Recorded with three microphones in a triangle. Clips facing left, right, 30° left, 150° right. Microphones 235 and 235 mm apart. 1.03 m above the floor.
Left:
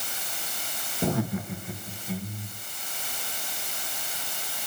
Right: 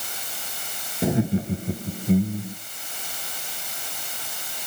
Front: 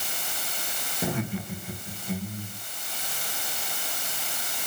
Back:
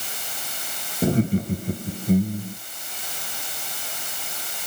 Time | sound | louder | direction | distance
1.0 | laughter | right 5 dB, back 9 dB | 160° right | 0.7 m